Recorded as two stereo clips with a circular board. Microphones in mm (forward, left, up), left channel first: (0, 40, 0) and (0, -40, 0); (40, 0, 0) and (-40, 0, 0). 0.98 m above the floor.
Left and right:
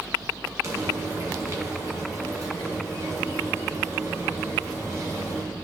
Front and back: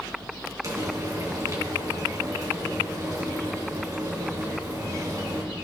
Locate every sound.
0.6 s frying: 140° right, 2.5 m